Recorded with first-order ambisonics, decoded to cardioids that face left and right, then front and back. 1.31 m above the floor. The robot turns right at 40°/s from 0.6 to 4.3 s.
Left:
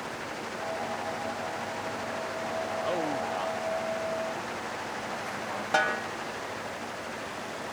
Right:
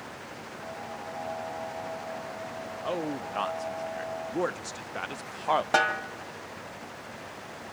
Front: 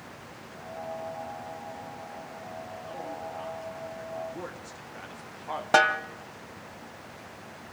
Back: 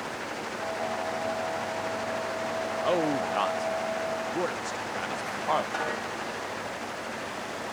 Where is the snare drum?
15° right, 1.7 m.